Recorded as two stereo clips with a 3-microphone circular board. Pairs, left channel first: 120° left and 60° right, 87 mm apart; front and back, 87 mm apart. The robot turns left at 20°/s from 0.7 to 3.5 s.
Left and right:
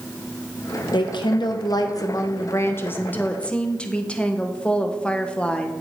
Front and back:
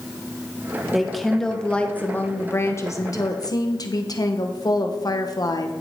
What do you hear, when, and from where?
0.9 s a woman speaking: 95° left, 1.0 m; by 5.7 s 45° left, 1.0 m